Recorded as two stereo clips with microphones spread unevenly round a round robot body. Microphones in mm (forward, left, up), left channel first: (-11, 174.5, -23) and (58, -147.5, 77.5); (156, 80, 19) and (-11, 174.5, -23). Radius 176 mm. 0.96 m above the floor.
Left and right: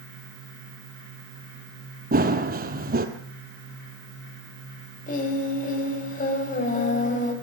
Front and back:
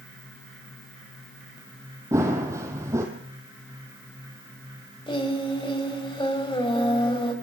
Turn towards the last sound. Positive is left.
turn(degrees=35)